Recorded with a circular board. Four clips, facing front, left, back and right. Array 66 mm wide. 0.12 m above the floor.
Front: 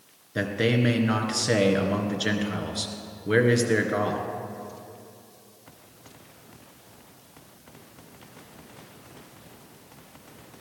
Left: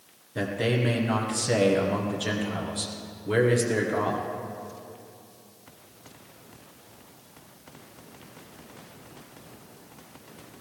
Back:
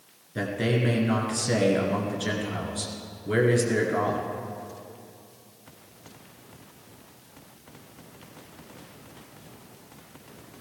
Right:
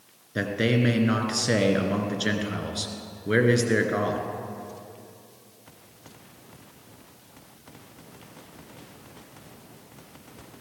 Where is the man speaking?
50° right, 2 m.